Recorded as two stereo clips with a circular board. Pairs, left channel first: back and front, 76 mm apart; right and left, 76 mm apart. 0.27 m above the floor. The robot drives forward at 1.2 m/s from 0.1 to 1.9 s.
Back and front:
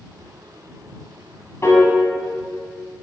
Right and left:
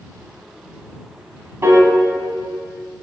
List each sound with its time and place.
1.6 s a piano: 135° left, 1.1 m; by 1.9 s 145° left, 1.3 m